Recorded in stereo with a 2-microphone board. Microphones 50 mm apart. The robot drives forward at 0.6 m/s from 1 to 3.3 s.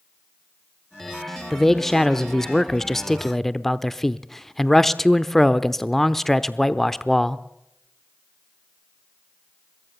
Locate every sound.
1.5 s a man speaking: 5° left (ahead or behind), 1.0 m